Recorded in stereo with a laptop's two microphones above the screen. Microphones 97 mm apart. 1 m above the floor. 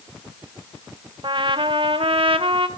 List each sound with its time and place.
1.2 s a trumpet: 65° right (ahead or behind), 0.7 m